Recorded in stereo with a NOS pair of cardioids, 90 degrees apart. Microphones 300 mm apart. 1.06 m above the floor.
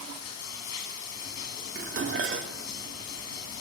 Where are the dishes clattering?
45° right, 1.7 m.